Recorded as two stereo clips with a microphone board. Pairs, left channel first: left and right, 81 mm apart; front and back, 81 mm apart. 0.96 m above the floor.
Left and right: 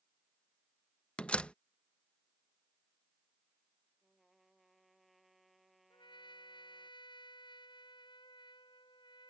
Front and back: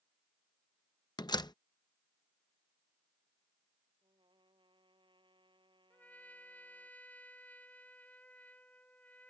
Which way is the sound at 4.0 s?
Straight behind.